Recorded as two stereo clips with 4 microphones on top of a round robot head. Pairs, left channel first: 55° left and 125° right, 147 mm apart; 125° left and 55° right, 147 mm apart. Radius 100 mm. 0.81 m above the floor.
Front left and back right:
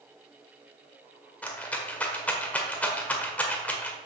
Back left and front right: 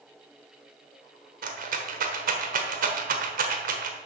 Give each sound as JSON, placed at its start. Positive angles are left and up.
{"t": 1.4, "sound": "a rattle", "azimuth_deg": -25, "distance_m": 1.5}